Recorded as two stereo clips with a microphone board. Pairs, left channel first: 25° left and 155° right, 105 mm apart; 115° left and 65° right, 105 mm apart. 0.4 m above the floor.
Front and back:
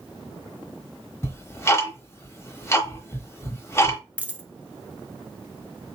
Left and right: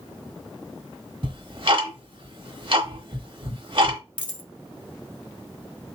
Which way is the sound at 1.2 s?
40° right.